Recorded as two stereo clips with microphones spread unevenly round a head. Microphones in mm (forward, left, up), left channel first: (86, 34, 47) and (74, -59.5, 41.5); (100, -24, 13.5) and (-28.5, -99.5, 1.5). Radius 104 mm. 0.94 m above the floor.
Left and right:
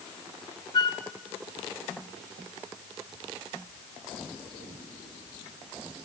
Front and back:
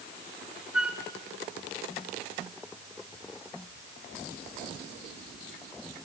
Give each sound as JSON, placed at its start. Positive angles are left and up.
{"t": 0.7, "sound": "a flute", "azimuth_deg": 130, "distance_m": 0.7}